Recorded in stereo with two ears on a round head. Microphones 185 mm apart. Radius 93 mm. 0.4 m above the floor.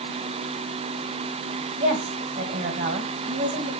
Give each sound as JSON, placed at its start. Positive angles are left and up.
{"t": 1.8, "sound": "a woman speaking", "side_deg": -45, "distance_m": 2.5}